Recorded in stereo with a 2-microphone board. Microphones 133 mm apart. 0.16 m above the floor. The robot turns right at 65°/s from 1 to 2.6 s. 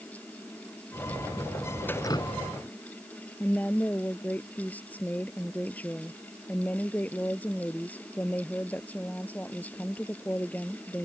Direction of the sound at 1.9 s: 15° left (ahead or behind).